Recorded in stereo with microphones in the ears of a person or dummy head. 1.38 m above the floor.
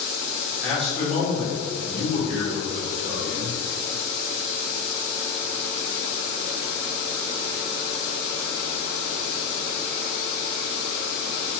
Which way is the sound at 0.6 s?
5° right (ahead or behind).